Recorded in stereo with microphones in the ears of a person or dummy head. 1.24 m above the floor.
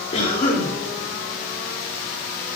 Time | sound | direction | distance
0.1 | a cough | 35° left (ahead or behind) | 3.5 m